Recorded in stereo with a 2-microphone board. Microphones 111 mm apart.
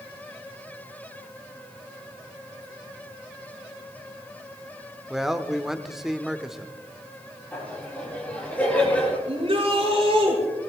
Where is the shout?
60° right (ahead or behind), 7.5 m.